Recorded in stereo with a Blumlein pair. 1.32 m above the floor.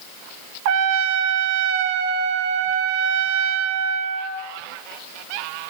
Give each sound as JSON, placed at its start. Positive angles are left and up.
{"t": 0.7, "sound": "a trumpet", "azimuth_deg": -45, "distance_m": 1.6}